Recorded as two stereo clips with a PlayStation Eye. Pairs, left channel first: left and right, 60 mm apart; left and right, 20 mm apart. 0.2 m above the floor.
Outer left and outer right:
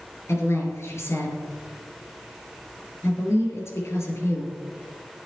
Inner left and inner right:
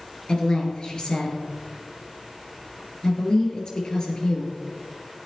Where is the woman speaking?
45° left (ahead or behind), 3 m.